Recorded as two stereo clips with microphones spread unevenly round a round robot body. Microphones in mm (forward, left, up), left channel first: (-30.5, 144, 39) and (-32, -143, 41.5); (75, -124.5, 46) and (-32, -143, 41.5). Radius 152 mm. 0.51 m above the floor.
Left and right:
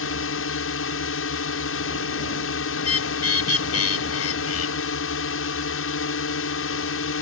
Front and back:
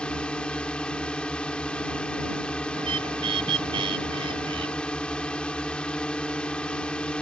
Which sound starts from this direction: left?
A drone, at 0.0 s.